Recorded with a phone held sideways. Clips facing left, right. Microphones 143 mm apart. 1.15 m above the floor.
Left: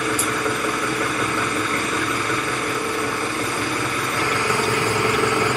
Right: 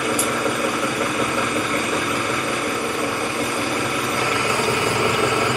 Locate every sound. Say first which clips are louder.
0.0 s an engine running: right 1 dB; 15° right (ahead or behind), 1.5 m